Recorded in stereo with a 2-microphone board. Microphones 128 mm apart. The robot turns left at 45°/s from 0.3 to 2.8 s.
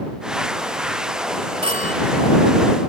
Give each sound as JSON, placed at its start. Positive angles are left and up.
{"t": 1.6, "sound": "a phone ringing", "side_deg": -50}